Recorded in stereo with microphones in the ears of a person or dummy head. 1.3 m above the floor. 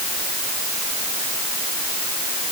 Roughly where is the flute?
No flute in this recording.